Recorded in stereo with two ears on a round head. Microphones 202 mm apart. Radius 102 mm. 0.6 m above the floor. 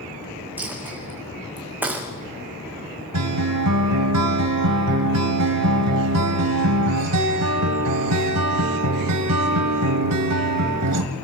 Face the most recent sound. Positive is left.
turn(degrees=-80)